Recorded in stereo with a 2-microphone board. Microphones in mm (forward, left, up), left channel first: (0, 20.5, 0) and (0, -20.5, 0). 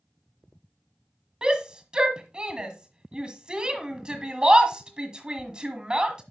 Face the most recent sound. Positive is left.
turn(degrees=-20)  # may be behind; listen again after turning